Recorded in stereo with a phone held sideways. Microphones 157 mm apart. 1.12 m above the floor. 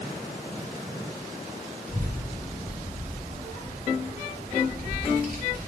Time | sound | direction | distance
1.9 | a child speaking | 70° right (ahead or behind) | 2.5 m